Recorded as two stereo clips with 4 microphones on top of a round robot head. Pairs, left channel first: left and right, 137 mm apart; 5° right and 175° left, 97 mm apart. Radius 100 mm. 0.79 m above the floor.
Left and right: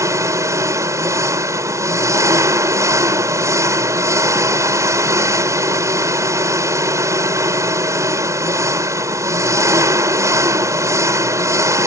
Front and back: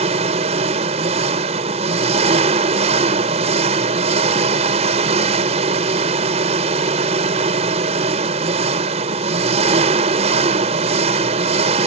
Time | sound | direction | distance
0.0 | an engine running | 160° right | ?